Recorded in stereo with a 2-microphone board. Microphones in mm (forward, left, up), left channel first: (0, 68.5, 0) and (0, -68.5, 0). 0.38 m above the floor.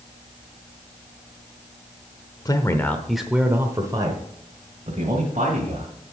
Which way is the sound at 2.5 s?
30° left (ahead or behind).